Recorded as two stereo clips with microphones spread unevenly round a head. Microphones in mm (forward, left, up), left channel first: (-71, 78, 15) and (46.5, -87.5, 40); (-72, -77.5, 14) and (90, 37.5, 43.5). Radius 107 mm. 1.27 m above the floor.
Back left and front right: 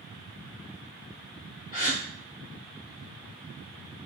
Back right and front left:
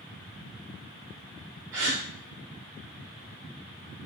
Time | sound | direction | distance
1.7 | a gasp | 70° left | 1.0 m